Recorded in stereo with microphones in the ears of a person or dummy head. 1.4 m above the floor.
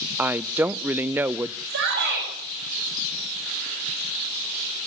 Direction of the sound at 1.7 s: 60° right (ahead or behind).